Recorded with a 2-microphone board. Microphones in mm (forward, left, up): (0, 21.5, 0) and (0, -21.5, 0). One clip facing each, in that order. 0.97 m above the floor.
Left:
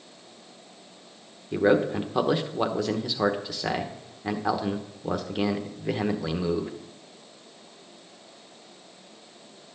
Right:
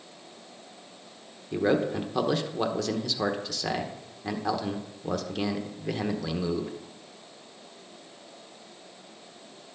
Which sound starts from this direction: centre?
A man speaking, at 1.5 s.